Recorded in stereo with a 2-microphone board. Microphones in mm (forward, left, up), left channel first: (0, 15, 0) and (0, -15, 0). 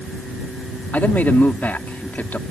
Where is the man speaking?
80° left.